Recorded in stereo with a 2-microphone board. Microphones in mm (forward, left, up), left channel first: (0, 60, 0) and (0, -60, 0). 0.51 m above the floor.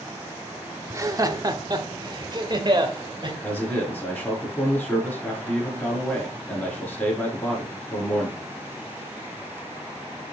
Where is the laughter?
25° right (ahead or behind), 0.8 m; by 3.3 s 40° right (ahead or behind), 2 m.